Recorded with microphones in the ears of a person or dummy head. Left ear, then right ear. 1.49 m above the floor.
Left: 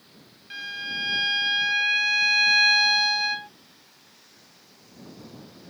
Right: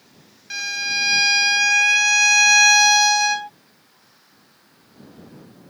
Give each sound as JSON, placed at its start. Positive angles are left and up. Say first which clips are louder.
{"t": 0.5, "sound": "a violin", "louder": "right 8 dB", "side_deg": -35}